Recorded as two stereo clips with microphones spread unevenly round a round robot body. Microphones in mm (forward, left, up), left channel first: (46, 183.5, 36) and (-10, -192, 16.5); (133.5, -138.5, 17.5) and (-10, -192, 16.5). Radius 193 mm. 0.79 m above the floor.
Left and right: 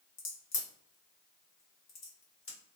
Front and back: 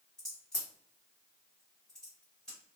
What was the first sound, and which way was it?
A crack, 105° left.